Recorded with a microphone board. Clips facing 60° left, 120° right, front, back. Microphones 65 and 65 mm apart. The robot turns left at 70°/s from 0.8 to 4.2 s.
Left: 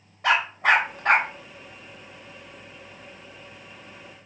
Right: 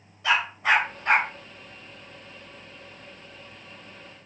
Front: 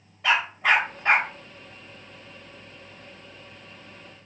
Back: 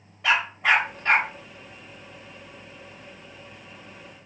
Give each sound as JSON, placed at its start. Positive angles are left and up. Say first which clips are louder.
{"t": 0.2, "sound": "a dog barking", "louder": "left 2 dB, even", "azimuth_deg": 90, "distance_m": 0.8}